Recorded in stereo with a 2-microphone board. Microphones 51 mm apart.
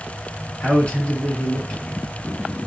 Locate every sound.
0.6 s a man speaking: 25° left (ahead or behind), 1.5 m